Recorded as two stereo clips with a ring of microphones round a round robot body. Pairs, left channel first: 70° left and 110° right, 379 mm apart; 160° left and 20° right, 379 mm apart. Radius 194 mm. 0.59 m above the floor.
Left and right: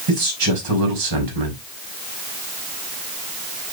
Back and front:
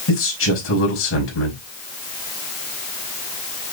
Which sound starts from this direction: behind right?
A man speaking, at 0.1 s.